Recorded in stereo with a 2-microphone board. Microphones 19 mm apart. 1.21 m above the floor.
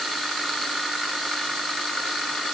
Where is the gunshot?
I don't hear a gunshot.